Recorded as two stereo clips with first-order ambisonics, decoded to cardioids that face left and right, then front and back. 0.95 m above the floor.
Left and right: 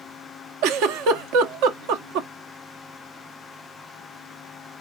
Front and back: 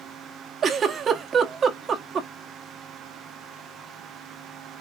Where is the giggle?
115° right, 0.9 m.